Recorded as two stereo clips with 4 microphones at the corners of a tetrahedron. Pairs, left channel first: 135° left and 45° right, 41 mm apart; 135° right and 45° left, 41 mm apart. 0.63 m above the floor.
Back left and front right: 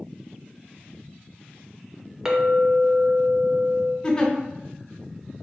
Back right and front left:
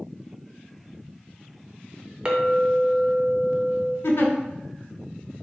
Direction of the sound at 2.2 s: 15° left.